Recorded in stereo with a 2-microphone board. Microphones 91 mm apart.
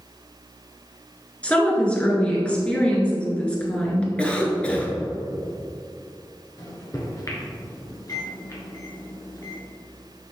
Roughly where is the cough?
Centre.